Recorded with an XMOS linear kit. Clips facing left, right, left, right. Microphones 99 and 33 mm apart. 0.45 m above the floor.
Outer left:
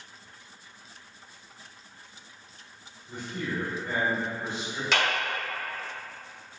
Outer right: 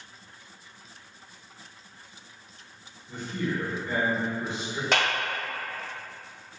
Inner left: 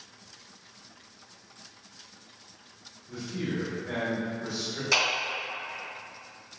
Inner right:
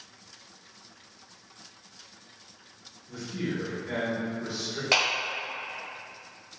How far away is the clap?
About 1.5 m.